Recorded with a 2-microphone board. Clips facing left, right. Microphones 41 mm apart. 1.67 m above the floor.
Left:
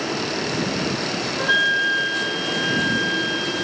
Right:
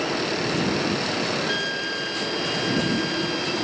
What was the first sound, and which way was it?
A flute, 40° left (ahead or behind).